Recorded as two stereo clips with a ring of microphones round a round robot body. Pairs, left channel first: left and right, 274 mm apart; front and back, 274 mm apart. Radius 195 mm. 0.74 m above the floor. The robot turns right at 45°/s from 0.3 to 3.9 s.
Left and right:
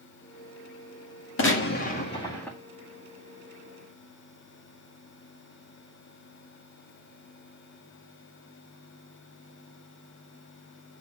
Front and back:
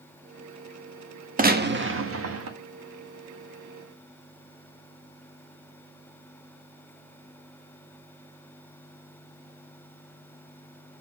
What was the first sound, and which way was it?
A gunshot, 125° left.